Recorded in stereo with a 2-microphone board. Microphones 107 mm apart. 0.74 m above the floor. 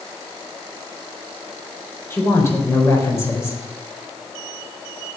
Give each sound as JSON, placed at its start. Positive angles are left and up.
{"t": 2.1, "sound": "a woman speaking", "side_deg": 25, "distance_m": 4.0}